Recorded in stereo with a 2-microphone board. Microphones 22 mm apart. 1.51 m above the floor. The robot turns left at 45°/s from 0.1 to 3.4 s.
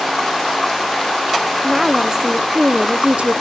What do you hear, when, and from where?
1.6 s a woman speaking: 5° right, 0.6 m; by 3.4 s 85° right, 0.6 m